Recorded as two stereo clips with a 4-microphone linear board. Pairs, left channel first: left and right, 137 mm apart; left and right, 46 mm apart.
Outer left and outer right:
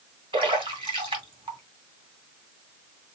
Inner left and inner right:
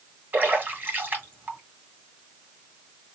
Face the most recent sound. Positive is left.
turn(degrees=-40)  # may be behind; listen again after turning